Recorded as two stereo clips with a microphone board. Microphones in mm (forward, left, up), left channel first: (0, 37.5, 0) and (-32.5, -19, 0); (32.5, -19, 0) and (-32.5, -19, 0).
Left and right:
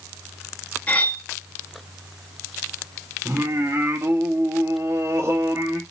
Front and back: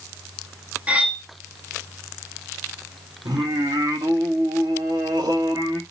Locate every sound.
0.9 s cutlery clinking: 115° left, 0.7 m
3.2 s singing: 165° right, 1.3 m